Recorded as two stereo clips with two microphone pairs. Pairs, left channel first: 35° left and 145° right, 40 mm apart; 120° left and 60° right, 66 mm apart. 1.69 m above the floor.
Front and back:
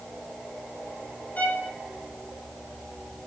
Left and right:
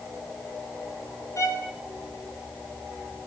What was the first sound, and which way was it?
A violin, 85° left.